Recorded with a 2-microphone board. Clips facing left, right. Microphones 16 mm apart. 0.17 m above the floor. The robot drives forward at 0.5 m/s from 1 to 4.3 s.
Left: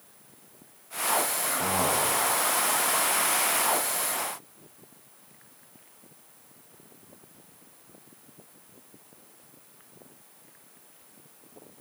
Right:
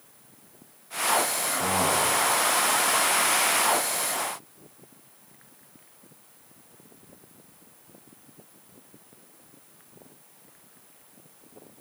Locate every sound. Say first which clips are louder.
1.4 s a man speaking: right 2 dB; 60° left (ahead or behind), 7.5 m; by 2.2 s 55° left (ahead or behind), 7.5 m